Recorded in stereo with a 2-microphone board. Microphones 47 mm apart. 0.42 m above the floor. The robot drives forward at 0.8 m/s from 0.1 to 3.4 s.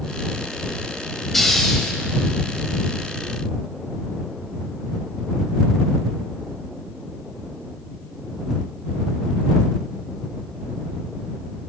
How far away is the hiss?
About 1.4 m.